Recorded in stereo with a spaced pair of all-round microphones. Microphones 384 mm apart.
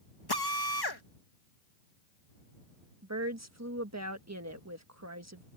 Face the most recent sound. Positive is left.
turn(degrees=-40)  # may be behind; listen again after turning